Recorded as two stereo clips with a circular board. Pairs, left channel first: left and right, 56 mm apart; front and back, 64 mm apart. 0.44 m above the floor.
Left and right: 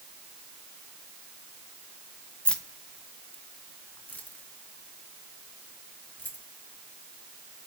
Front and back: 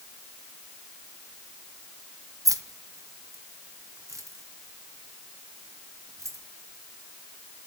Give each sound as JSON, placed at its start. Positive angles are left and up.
{"t": 2.5, "sound": "keys jangling", "azimuth_deg": 160, "distance_m": 1.8}